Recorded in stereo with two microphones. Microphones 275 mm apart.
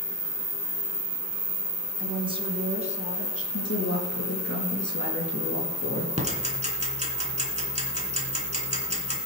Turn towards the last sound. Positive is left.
turn(degrees=-25)  # may be behind; listen again after turning